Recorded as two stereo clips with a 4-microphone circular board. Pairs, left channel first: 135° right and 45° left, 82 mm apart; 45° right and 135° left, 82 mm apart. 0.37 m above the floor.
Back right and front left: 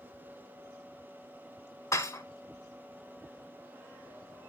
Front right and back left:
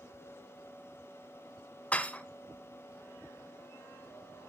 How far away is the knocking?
No knocking in this recording.